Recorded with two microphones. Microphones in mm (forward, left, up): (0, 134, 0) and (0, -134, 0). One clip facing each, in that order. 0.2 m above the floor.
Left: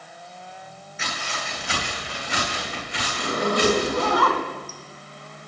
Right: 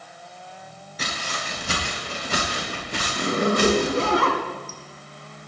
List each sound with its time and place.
1.0 s footsteps: 40° right (ahead or behind), 9.5 m; by 4.1 s 55° right (ahead or behind), 9.5 m
3.1 s a zipper: 30° right (ahead or behind), 2 m